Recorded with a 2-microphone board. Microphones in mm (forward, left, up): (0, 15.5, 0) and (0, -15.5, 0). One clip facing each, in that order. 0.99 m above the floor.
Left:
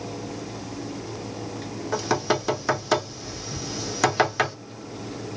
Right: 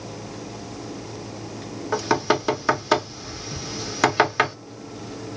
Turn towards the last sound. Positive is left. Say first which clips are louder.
# right 3 dB
turn(degrees=-15)  # may be behind; listen again after turning